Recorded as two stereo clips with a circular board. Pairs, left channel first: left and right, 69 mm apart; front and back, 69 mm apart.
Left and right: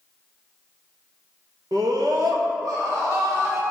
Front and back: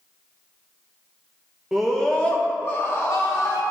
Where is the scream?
95° right, 1.2 m; by 3.6 s 40° right, 2.5 m.